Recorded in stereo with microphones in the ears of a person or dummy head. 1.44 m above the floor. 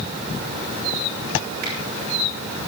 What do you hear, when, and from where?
1.6 s a finger snap: 60° right (ahead or behind), 6 m